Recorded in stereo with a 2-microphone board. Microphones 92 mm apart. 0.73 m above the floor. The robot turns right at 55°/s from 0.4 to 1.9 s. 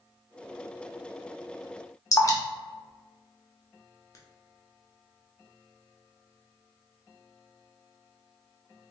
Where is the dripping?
35° left (ahead or behind), 0.6 m.